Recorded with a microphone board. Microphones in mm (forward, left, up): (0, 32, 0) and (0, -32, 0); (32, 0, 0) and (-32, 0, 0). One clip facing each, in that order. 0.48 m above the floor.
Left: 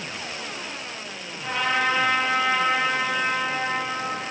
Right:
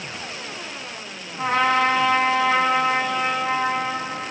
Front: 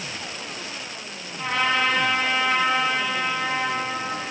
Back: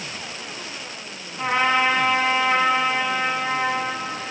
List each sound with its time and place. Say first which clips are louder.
1.4 s a trumpet: right 5 dB, back 3 dB; 115° right, 3.5 m